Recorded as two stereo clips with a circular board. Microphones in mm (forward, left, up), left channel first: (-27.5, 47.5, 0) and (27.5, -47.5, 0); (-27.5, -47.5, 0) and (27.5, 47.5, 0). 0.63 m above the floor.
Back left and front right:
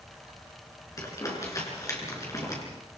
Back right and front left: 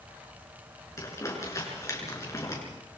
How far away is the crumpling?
About 6.5 m.